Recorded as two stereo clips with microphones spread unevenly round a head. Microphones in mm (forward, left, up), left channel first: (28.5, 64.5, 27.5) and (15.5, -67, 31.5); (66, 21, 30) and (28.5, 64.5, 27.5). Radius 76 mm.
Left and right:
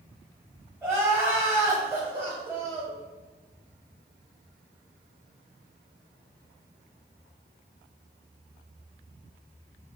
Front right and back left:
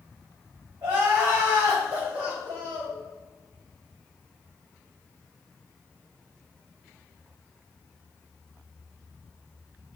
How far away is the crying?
About 1.0 m.